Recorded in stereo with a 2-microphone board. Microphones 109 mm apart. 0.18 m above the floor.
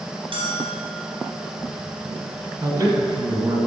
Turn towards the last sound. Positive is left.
turn(degrees=-35)  # may be behind; listen again after turning